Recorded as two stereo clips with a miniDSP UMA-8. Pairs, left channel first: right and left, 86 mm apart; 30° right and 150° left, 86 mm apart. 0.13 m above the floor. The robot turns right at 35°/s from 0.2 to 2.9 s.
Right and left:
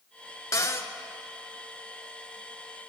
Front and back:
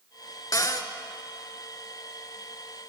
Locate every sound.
0.5 s a cupboard door: 55° right, 0.5 m; by 0.9 s 40° right, 0.5 m